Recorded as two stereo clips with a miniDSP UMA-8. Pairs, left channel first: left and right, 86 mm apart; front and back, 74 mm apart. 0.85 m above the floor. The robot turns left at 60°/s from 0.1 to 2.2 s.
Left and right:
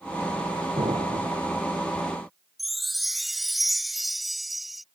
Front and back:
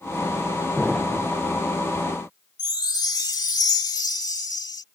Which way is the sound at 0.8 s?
90° right.